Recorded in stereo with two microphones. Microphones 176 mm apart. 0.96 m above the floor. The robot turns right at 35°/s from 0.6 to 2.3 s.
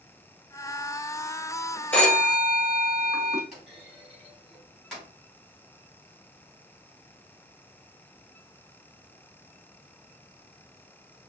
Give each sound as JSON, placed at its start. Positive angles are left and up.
{"t": 1.9, "sound": "a phone ringing", "side_deg": 10, "distance_m": 2.5}
{"t": 3.5, "sound": "a clunk", "side_deg": 0, "distance_m": 3.0}